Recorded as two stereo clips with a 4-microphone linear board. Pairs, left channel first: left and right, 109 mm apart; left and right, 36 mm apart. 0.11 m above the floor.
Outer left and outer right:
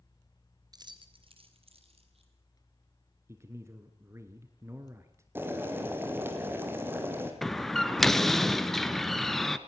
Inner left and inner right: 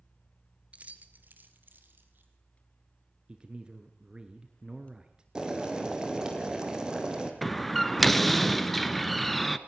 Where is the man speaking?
25° right (ahead or behind), 1.4 m.